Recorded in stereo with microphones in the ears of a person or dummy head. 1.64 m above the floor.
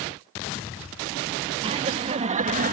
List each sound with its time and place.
1.6 s laughter: 30° right (ahead or behind); by 2.7 s 40° right (ahead or behind)